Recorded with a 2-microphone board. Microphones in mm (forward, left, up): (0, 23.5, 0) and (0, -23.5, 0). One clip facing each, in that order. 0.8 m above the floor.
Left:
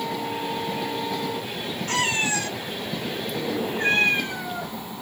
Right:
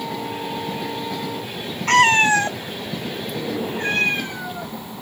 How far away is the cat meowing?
About 0.5 m.